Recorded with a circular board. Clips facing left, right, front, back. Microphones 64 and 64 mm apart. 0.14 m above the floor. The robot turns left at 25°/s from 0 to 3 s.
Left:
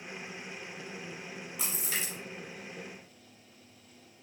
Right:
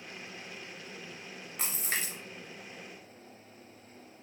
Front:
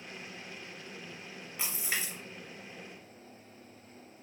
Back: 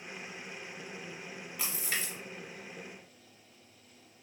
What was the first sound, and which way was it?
A splash, 65° right.